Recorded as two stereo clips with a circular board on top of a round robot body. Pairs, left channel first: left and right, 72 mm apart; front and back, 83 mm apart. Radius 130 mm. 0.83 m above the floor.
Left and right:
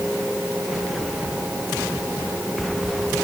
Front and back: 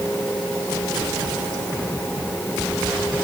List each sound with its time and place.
Only background noise.